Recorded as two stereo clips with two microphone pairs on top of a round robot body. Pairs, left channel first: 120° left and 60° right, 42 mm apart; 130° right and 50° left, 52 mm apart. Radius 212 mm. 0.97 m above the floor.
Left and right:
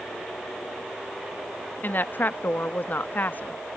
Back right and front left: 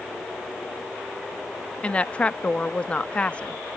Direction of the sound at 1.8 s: 160° left.